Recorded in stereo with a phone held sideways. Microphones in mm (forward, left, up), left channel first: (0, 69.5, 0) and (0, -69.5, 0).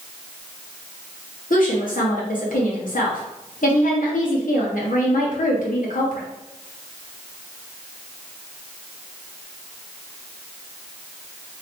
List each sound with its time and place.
1.5 s a woman speaking: 75° left (ahead or behind), 1.4 m